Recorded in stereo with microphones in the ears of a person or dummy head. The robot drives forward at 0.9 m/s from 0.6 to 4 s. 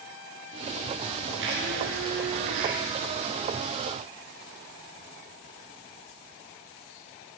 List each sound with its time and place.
1.4 s a blender: 70° right (ahead or behind), 6.5 m; by 2.8 s 80° right, 6 m